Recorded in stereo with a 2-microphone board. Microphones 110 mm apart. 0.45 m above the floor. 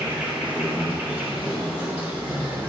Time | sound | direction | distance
0.0 | an insect | 15° right (ahead or behind) | 2.5 m